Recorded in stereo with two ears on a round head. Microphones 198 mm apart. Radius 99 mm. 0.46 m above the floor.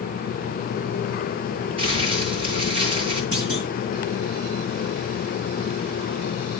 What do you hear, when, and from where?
1.8 s crumpling: 25° right (ahead or behind), 7.5 m
3.3 s a clunk: 25° right (ahead or behind), 7.5 m